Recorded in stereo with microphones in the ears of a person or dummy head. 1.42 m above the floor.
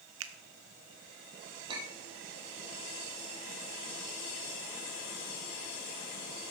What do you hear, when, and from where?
0.2 s a finger snap: 75° right (ahead or behind), 0.8 m
1.7 s a clink: 30° right (ahead or behind), 1.7 m